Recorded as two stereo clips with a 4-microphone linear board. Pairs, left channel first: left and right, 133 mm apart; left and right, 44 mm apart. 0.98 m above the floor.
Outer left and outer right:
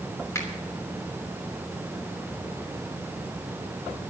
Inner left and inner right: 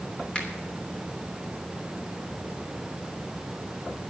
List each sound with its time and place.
0.3 s a finger snap: 20° left (ahead or behind), 3 m